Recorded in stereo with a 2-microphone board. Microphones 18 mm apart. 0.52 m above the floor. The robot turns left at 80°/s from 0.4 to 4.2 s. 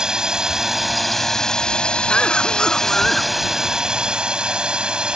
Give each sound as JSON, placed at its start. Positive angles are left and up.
{"t": 0.0, "sound": "a drone", "azimuth_deg": -130}
{"t": 2.1, "sound": "a cough", "azimuth_deg": 120}